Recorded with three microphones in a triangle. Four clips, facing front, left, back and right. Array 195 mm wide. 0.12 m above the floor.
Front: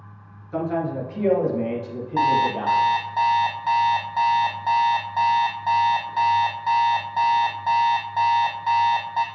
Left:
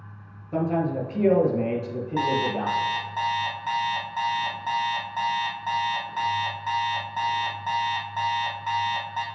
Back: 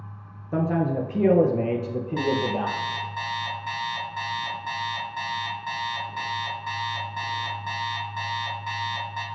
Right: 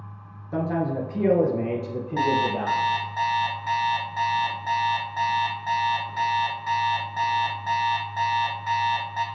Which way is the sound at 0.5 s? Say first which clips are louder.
Left 1 dB, back 1 dB; 170° right.